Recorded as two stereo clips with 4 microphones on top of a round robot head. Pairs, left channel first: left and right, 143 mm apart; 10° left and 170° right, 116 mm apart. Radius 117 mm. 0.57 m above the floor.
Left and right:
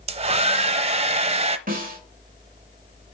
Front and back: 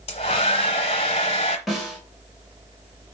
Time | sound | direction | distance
0.1 | a hair dryer | 45° right | 0.6 m
1.7 | a snare drum | 80° right | 3.5 m